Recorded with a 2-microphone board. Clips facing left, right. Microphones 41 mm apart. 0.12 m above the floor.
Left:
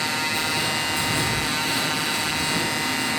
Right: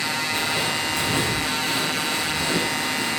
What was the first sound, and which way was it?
Footsteps, 50° right (ahead or behind).